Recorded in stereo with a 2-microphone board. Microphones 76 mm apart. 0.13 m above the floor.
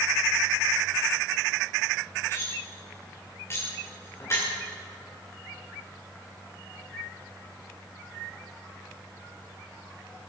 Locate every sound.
2.3 s cutlery clinking: 35° left (ahead or behind), 6.5 m